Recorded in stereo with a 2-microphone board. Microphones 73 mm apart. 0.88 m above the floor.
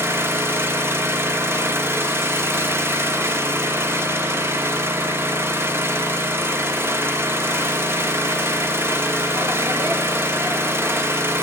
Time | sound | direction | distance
0.0 | an engine running | 35° right (ahead or behind) | 0.9 m